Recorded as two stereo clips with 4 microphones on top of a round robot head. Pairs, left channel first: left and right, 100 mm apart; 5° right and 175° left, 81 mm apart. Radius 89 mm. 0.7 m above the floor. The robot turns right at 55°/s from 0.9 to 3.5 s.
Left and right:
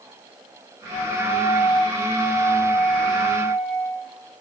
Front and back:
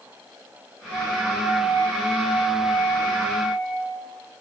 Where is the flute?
60° left, 4 m; by 4.0 s 155° right, 4 m.